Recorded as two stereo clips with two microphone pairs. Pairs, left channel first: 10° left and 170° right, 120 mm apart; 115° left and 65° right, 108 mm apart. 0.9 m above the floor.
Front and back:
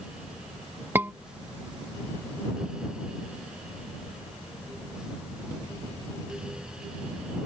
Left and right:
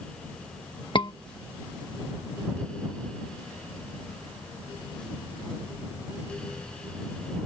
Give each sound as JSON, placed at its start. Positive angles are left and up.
{"t": 0.9, "sound": "a scream", "azimuth_deg": 125}